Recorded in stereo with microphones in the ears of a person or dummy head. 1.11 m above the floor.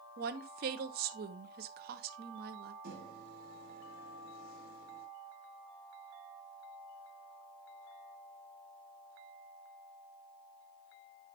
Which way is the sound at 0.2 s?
55° right (ahead or behind).